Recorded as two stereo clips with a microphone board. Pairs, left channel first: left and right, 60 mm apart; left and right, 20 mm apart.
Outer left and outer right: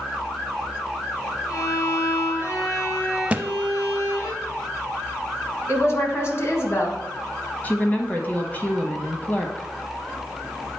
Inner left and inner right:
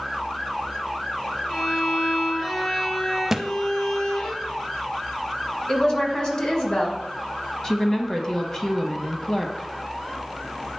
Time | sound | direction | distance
1.5 | a violin | 50° left (ahead or behind) | 2.5 m
3.3 | a thud | 20° right (ahead or behind) | 0.5 m
5.7 | a woman speaking | 45° left (ahead or behind) | 1.7 m
7.6 | a woman speaking | 25° left (ahead or behind) | 1.2 m